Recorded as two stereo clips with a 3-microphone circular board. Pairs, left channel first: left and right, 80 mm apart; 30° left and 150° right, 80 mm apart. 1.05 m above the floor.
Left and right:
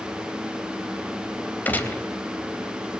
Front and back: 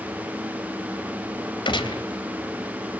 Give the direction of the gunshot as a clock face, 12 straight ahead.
11 o'clock.